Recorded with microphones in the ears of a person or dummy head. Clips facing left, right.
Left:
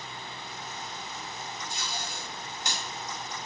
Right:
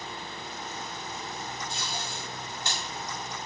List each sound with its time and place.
1.7 s tape being pulled: 15° left (ahead or behind), 1.2 m